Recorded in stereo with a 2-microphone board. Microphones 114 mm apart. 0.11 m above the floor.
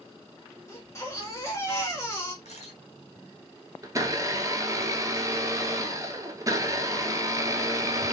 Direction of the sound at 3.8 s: 30° right (ahead or behind).